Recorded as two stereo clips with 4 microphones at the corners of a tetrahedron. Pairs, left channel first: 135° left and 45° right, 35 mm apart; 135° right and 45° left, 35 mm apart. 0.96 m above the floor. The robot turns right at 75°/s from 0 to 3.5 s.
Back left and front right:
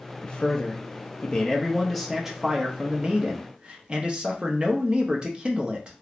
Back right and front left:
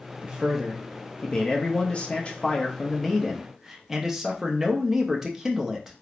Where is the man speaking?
90° left, 0.6 m; by 6.0 s 25° right, 0.6 m.